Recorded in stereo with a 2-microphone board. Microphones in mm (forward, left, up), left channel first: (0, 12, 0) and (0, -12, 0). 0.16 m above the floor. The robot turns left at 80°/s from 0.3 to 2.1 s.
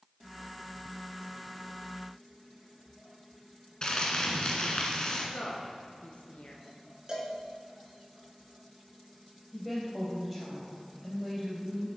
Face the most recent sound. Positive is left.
turn(degrees=0)  # may be behind; listen again after turning